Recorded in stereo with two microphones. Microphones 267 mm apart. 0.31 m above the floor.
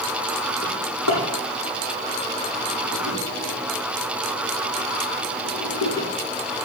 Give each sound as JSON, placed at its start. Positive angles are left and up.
{"t": 0.6, "sound": "a drawer", "side_deg": 85, "distance_m": 5.5}